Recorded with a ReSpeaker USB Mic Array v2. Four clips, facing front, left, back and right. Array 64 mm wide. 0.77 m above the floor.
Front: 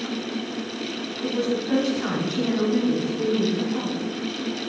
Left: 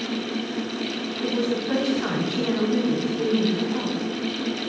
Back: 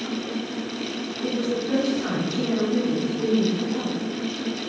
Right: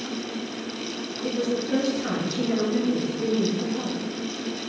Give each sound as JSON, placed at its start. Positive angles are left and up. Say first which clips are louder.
{"t": 1.2, "sound": "a woman speaking", "louder": "left 1 dB, front 1 dB", "azimuth_deg": 70, "distance_m": 4.5}